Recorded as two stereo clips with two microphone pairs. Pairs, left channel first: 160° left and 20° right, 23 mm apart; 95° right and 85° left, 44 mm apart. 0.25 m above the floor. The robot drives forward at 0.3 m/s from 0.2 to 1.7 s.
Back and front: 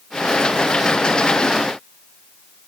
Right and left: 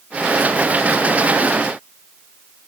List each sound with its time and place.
Only background noise.